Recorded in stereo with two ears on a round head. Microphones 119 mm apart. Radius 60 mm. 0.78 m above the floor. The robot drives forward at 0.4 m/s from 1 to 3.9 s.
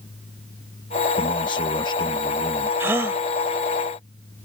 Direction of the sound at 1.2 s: 35° left (ahead or behind).